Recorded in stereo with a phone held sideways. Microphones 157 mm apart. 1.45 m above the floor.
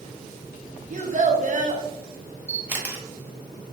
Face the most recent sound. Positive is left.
turn(degrees=-10)  # may be behind; listen again after turning